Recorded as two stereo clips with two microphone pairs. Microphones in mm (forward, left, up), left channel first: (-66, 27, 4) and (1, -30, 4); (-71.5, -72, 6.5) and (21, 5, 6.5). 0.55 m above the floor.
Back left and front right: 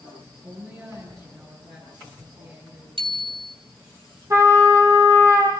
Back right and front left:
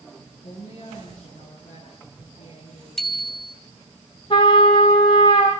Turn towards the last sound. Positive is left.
turn(degrees=-95)